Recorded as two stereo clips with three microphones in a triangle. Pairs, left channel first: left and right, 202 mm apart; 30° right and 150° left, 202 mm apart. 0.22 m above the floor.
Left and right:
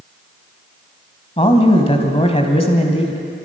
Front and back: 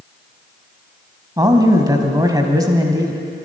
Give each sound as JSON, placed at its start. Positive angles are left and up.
{"t": 1.4, "sound": "a man speaking", "azimuth_deg": 100, "distance_m": 1.4}